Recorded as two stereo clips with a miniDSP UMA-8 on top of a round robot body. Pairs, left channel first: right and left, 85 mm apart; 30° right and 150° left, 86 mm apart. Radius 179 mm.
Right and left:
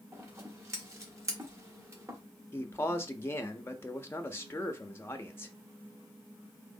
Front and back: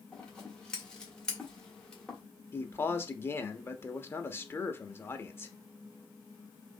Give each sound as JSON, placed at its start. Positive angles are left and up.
{"t": 0.1, "sound": "scissors", "azimuth_deg": 50, "distance_m": 1.7}
{"t": 2.5, "sound": "a man speaking", "azimuth_deg": -60, "distance_m": 0.9}